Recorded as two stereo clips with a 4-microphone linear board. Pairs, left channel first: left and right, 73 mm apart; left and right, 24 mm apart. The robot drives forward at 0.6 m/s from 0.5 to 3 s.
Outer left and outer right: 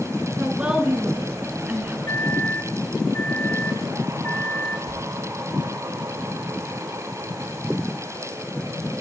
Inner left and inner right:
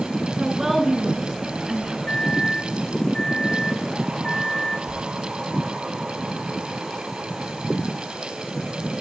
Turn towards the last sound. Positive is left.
turn(degrees=20)  # may be behind; listen again after turning